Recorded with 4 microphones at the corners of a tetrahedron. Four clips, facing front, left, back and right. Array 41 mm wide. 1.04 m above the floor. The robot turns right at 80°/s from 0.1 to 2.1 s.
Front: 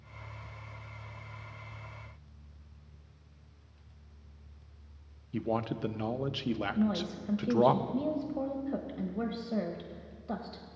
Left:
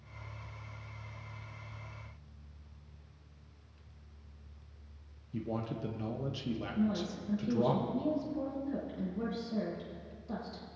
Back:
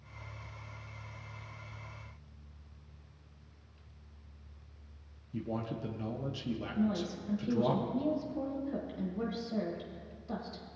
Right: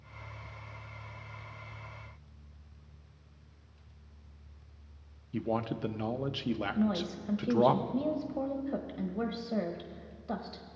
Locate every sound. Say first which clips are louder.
5.3 s a man speaking: right 5 dB, front 5 dB; 40° right, 0.6 m
6.8 s a woman speaking: right 2 dB, front 2 dB; 45° right, 1.2 m